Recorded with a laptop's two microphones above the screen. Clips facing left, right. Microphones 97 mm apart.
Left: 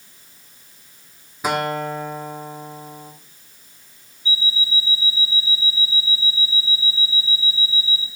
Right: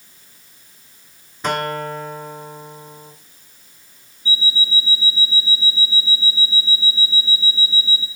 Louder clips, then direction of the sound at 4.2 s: Right 2 dB; 35° right (ahead or behind).